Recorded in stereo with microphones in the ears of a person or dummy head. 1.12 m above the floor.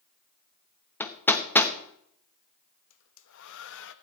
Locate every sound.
1.0 s hammering: 10° left (ahead or behind), 1.0 m
2.9 s a hair dryer: 65° left (ahead or behind), 0.8 m